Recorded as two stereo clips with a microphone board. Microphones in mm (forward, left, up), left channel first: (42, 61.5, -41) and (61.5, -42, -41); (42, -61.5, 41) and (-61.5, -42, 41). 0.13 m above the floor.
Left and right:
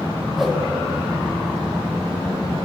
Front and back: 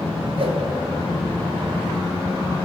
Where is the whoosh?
165° right, 0.8 m.